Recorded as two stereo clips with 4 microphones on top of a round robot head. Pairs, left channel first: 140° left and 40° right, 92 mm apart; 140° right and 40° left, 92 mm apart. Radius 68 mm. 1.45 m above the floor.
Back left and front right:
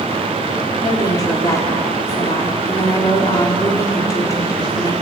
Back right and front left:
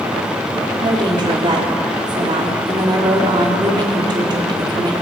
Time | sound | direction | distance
0.8 | a woman speaking | 85° left | 4 m